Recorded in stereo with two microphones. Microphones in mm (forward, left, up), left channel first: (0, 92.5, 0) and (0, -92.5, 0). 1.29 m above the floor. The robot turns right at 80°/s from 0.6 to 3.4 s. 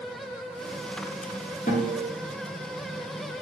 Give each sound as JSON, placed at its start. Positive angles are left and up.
{"t": 1.7, "sound": "a guitar", "azimuth_deg": 130, "distance_m": 1.1}